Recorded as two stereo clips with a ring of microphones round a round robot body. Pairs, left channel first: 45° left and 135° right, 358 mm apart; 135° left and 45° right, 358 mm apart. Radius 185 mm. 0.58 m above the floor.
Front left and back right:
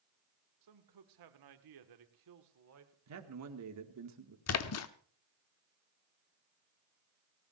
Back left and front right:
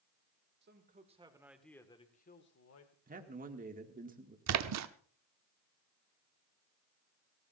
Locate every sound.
0.6 s a man speaking: 105° right, 2.5 m; by 3.0 s 175° left, 2 m
3.1 s a man speaking: 105° right, 2.0 m
4.5 s a splash: straight ahead, 0.9 m